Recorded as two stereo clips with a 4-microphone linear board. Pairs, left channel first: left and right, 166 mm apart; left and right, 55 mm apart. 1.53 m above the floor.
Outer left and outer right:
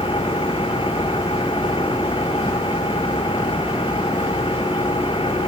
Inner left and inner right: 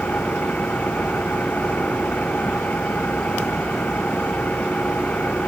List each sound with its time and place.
0.0 s an engine running: 30° left (ahead or behind)